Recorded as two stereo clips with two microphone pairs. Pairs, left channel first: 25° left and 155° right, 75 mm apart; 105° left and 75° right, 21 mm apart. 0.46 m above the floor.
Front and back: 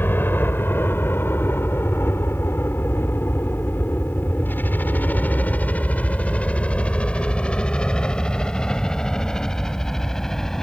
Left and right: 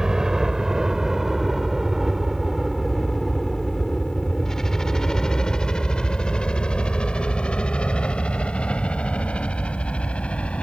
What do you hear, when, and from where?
0.0 s a helicopter: 25° right; by 10.6 s 110° left